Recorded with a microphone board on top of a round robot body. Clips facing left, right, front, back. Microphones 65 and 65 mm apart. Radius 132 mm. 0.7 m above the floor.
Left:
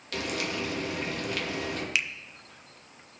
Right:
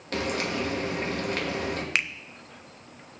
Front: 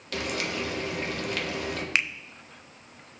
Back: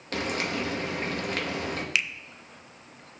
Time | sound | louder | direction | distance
0.1 | frying | right 4 dB, back 1 dB | 135° right | 1.2 m
1.9 | a finger snap | right 2 dB, front 2 dB | 50° right | 0.5 m